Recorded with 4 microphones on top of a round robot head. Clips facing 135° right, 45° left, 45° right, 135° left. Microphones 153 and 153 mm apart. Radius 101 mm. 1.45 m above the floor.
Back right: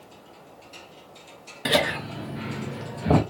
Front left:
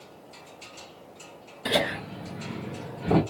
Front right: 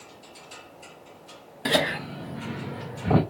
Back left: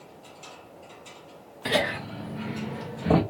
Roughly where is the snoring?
I don't hear snoring.